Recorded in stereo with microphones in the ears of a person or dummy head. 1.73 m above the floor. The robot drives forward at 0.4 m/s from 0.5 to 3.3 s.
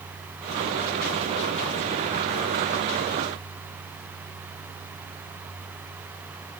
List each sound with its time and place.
Only background noise.